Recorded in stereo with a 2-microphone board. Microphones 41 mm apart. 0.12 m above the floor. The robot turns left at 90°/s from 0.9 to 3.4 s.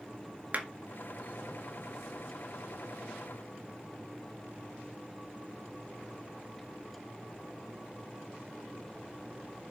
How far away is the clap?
About 1.8 m.